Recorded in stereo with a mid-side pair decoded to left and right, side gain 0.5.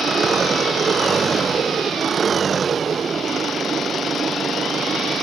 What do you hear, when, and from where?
0.0 s an engine running: 35° right